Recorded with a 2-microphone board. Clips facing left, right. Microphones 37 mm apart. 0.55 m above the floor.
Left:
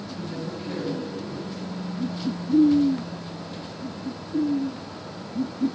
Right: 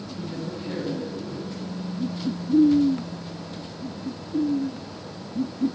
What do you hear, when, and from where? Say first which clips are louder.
0.1 s a woman speaking: right 1 dB; 10° right (ahead or behind), 4.5 m